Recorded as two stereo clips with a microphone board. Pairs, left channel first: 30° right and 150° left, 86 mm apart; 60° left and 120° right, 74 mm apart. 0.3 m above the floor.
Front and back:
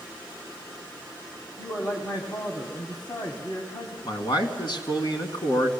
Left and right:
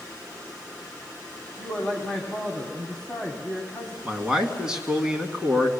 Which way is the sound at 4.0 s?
45° right.